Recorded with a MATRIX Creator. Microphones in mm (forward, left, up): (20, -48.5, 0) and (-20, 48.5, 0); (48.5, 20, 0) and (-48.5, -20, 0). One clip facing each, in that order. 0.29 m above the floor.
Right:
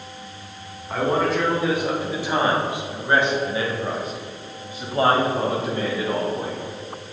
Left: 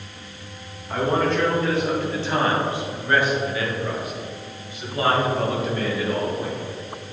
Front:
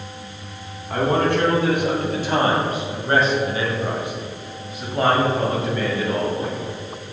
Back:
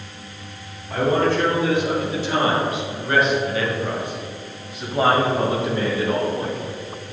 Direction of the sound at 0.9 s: 20° left.